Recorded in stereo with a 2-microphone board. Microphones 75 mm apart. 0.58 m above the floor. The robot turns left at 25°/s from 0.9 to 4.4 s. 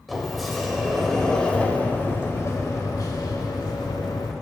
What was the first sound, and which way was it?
A sliding door, straight behind.